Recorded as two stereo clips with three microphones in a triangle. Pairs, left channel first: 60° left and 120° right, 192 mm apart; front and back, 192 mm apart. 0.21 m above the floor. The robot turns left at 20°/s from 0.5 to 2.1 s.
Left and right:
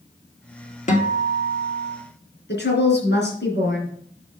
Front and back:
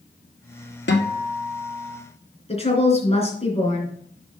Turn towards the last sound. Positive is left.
turn(degrees=55)